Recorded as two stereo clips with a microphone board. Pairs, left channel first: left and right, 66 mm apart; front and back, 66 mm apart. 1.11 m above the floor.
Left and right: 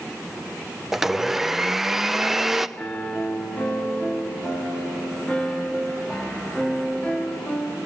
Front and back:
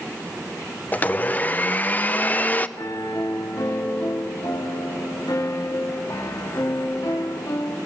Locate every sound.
0.9 s a blender: 10° right, 0.7 m
2.8 s a piano: 20° left, 2 m